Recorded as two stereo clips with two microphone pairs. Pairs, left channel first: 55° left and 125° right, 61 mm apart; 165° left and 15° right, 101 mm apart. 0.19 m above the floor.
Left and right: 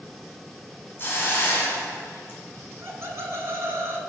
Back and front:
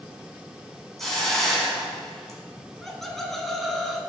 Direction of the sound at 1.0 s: 75° left.